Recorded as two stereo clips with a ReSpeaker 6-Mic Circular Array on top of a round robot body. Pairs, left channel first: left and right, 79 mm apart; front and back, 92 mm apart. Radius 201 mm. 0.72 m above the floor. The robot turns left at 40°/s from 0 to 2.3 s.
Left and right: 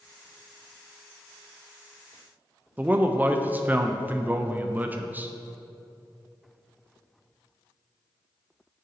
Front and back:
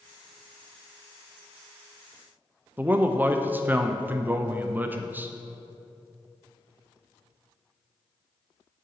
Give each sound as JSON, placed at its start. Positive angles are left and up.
{"t": 2.8, "sound": "a man speaking", "azimuth_deg": -135, "distance_m": 0.5}